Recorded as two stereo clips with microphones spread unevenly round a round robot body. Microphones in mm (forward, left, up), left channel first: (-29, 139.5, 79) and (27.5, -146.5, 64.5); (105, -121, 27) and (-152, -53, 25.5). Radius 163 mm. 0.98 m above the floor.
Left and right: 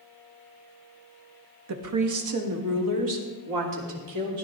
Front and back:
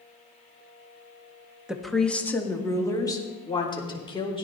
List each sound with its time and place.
1.7 s a woman speaking: 110° right, 1.6 m; by 4.4 s 85° right, 4 m